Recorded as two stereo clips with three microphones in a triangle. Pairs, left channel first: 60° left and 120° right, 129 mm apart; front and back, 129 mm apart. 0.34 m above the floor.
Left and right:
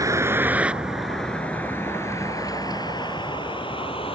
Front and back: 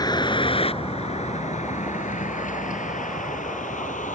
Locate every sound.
0.0 s a vehicle: 55° right; by 4.2 s 15° left